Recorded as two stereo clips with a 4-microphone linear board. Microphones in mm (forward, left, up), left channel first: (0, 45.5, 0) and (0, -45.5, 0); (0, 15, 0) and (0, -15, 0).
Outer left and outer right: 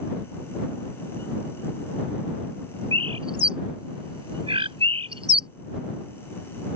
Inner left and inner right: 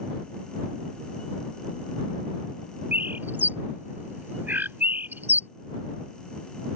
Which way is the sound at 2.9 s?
85° right.